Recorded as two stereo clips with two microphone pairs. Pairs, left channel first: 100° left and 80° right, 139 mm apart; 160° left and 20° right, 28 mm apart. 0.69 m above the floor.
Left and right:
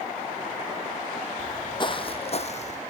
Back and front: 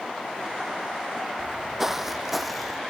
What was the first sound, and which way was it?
Footsteps, 45° left.